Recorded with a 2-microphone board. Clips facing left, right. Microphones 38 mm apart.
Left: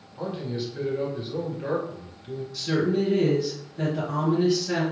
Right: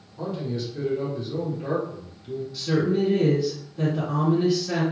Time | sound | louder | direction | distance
0.2 | a man speaking | right 1 dB | 20° left (ahead or behind) | 1.2 m
2.5 | a woman speaking | right 1 dB | 15° right (ahead or behind) | 1.7 m